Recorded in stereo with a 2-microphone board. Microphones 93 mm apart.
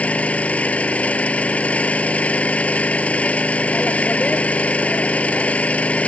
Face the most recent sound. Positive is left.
turn(degrees=15)  # may be behind; listen again after turning